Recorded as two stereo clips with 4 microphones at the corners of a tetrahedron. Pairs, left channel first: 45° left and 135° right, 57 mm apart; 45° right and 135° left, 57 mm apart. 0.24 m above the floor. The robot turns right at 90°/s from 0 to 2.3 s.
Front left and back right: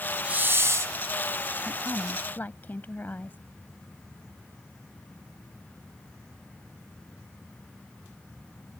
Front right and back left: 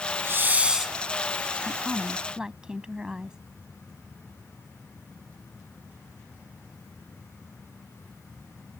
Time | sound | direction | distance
0.2 | a hiss | 160° left | ?
1.6 | a woman speaking | 10° left | ?